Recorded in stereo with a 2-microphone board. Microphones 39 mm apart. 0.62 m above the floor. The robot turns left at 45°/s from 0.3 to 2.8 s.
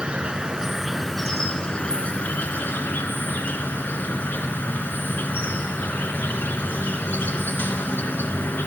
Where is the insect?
150° right, 1.2 m; by 8.7 s 100° left, 1.2 m.